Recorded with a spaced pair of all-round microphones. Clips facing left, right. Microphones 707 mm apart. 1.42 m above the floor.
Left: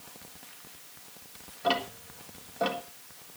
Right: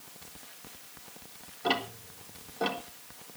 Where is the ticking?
10° left (ahead or behind), 1.6 m.